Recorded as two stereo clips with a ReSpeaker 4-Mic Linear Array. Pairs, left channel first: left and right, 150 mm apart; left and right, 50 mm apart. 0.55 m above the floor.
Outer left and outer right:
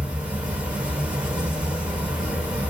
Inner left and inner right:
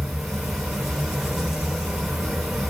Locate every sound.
0.0 s an insect: 10° right (ahead or behind), 0.8 m